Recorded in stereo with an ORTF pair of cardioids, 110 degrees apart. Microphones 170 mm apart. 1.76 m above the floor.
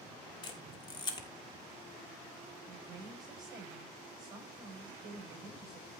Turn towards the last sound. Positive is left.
turn(degrees=-25)